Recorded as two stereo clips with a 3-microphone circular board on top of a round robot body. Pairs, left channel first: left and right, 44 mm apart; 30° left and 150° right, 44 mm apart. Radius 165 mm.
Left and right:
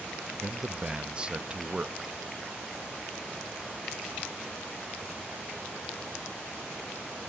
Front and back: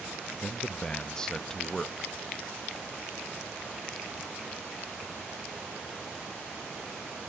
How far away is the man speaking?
About 0.7 m.